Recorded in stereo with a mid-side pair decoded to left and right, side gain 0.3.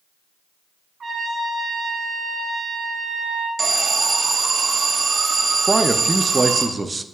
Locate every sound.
1.0 s a trumpet: 65° right, 2 m
3.6 s an alarm: 60° right, 0.9 m
5.7 s a man speaking: 30° right, 0.6 m